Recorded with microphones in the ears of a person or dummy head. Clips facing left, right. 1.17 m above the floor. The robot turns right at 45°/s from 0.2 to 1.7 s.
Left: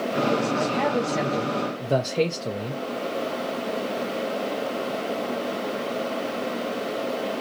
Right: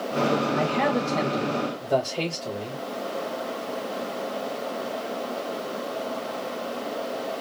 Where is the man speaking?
20° right, 0.6 m; by 2.8 s 30° left, 0.6 m.